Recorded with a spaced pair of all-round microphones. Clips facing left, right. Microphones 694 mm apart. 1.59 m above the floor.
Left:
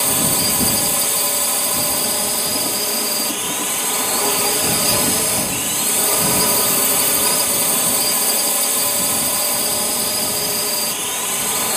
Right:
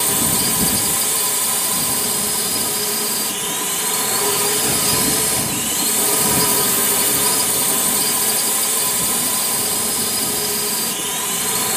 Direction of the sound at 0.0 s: 45° right (ahead or behind).